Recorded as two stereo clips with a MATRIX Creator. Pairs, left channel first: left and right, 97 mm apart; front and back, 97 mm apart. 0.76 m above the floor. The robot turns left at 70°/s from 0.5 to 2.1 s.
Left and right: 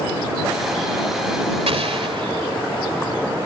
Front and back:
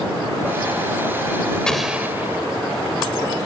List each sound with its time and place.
1.7 s an explosion: 80° right; by 2.5 s 110° right